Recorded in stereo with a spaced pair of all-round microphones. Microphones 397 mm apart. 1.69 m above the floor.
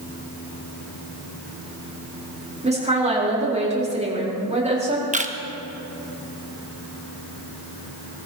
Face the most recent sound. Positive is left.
turn(degrees=-20)  # may be behind; listen again after turning